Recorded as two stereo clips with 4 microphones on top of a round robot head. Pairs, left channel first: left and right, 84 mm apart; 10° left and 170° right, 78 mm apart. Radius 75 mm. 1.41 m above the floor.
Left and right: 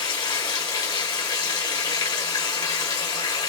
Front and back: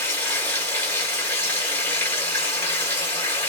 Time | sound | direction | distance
0.0 | running water | 60° left | 1.3 m